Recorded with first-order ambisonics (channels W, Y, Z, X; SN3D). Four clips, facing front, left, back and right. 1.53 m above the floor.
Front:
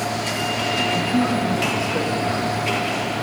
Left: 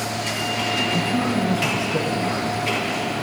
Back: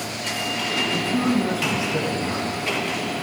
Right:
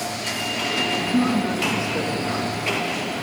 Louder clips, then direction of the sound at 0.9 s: Right 1 dB, front 1 dB; 140° left.